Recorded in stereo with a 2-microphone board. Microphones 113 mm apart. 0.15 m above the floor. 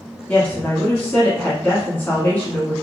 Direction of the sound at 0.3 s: 15° left (ahead or behind).